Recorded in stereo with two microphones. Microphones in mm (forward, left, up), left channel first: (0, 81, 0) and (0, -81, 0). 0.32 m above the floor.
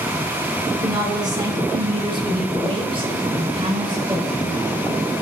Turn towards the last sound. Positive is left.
turn(degrees=-20)  # may be behind; listen again after turning